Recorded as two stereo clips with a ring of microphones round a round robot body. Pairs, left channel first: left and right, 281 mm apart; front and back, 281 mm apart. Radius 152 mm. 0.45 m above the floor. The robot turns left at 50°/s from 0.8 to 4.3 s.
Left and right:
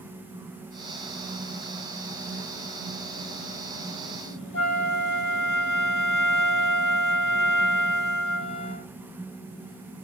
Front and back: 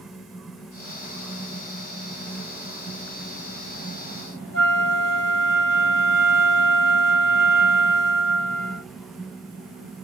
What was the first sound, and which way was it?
A flute, 45° left.